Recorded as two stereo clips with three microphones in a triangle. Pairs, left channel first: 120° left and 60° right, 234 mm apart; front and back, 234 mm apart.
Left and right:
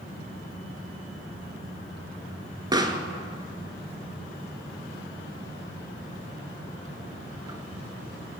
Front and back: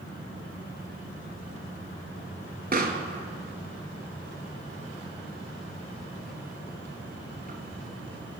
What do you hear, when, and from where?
2.7 s a pop: 135° right, 0.6 m